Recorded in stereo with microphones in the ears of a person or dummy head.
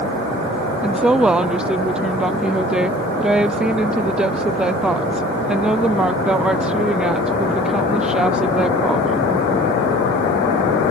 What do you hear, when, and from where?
0.8 s a woman speaking: 10° right (ahead or behind)